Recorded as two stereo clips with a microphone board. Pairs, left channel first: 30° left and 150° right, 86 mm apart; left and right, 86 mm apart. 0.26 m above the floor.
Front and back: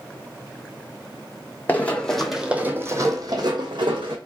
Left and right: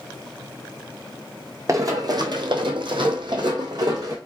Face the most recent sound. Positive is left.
turn(degrees=-135)